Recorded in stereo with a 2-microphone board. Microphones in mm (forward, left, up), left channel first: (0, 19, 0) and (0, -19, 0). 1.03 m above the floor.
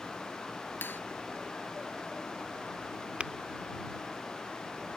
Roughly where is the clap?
Left.